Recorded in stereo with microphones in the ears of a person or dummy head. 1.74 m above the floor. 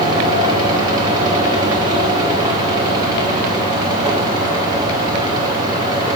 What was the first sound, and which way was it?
A fan, 25° right (ahead or behind).